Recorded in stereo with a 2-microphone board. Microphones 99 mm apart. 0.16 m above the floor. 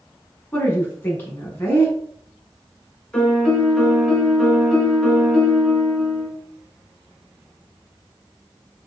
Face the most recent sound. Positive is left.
turn(degrees=5)  # may be behind; listen again after turning